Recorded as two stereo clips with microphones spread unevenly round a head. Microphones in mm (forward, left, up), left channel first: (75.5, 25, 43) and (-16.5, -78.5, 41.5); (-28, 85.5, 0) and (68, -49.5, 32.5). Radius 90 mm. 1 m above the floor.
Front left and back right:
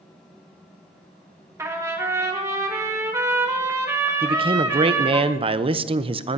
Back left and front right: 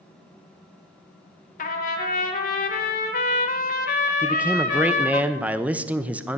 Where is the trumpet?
155° left, 1.7 m.